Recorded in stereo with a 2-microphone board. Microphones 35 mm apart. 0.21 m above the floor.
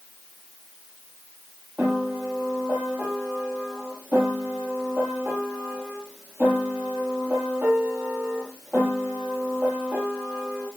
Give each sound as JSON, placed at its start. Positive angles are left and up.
{"t": 1.8, "sound": "a piano", "side_deg": -75, "distance_m": 6.5}